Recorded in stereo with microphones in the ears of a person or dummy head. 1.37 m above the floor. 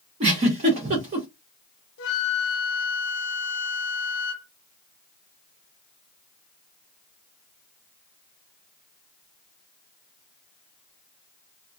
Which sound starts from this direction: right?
A giggle, at 0.2 s.